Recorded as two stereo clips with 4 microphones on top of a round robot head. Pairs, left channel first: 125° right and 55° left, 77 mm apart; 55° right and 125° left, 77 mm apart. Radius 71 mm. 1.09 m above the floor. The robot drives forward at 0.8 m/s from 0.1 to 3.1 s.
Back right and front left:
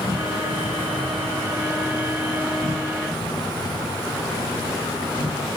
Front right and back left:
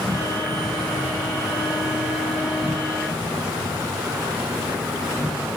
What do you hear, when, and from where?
0.0 s an insect: 145° right, 4 m; by 5.6 s 155° right, 6 m